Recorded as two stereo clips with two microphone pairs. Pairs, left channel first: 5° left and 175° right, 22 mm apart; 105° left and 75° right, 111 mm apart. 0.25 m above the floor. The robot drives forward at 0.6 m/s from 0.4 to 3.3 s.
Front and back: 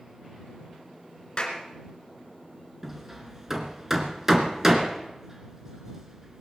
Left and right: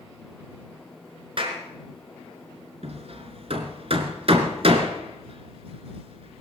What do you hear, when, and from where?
1.4 s a clap: 40° right, 3 m; by 1.6 s 45° right, 3 m
2.8 s hammering: 95° right, 1.8 m; by 6.4 s 105° right, 1.9 m